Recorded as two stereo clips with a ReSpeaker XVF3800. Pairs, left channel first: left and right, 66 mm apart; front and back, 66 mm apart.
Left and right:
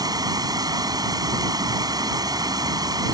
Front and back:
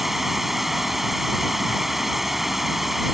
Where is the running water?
95° right.